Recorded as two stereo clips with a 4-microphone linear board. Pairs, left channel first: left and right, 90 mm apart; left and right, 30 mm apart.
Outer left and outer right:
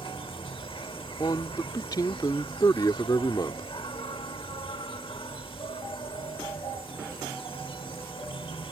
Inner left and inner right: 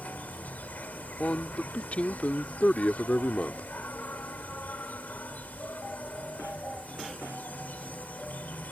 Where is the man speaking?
50° left (ahead or behind).